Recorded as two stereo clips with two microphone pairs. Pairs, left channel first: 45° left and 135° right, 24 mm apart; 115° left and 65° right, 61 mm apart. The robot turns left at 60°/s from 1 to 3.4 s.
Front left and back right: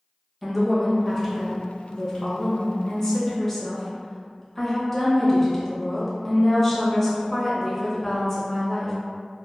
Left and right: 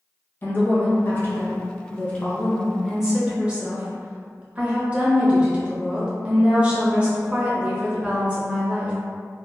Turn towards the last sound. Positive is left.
turn(degrees=-15)